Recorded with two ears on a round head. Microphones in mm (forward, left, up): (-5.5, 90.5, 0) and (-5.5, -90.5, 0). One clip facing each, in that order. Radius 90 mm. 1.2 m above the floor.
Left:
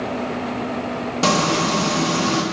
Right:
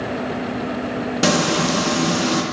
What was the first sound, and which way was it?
Frying, 15° right (ahead or behind).